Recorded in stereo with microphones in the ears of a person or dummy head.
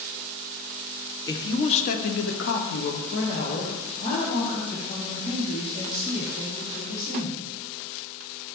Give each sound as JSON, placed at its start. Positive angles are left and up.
{"t": 1.3, "sound": "a man speaking", "side_deg": 20, "distance_m": 0.8}